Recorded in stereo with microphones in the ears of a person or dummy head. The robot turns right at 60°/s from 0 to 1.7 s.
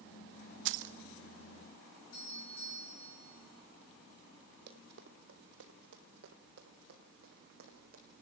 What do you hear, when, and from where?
0.7 s keys jangling: 60° right (ahead or behind), 0.5 m
2.1 s a doorbell: 80° left, 6 m
4.7 s running footsteps: 55° right (ahead or behind), 3 m; by 8.0 s 40° right (ahead or behind), 4.5 m